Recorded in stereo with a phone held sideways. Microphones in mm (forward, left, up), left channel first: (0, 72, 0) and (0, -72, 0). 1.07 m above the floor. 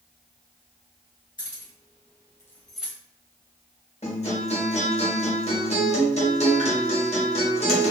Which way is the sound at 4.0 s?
50° left (ahead or behind).